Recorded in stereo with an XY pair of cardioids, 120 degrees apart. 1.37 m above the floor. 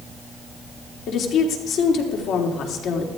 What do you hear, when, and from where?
1.1 s a woman speaking: 65° left, 3.5 m